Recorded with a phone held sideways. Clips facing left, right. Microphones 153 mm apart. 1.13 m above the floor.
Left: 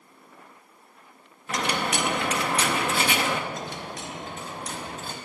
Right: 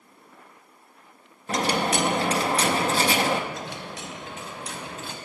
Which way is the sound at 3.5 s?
45° left (ahead or behind).